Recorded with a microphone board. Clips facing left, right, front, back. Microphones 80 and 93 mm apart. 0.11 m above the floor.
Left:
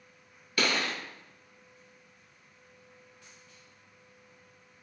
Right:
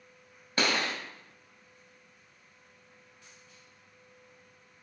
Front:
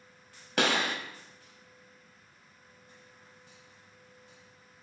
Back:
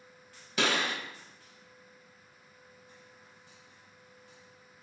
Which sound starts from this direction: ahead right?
A gunshot, at 0.6 s.